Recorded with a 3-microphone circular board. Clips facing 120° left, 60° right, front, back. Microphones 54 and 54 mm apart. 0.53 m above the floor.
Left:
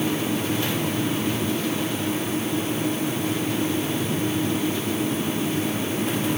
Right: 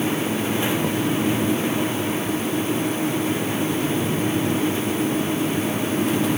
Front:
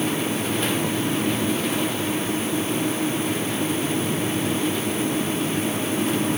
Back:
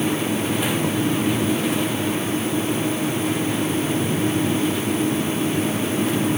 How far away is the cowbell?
I don't hear a cowbell.